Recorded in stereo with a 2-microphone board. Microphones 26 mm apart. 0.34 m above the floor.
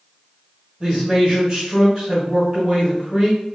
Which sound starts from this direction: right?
A man speaking, at 0.8 s.